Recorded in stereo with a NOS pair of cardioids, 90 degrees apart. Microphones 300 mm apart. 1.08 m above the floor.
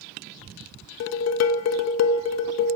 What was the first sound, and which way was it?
Dishes clattering, 60° left.